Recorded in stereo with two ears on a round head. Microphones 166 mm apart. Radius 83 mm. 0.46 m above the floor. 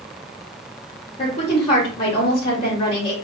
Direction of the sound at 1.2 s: 30° left (ahead or behind).